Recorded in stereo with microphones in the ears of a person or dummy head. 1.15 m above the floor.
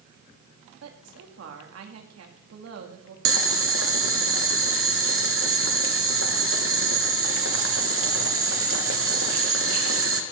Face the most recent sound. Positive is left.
turn(degrees=-65)  # may be behind; listen again after turning